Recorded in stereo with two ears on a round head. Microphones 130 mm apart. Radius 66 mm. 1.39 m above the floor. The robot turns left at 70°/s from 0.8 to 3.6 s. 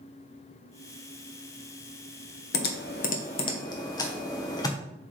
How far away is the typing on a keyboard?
About 1.0 m.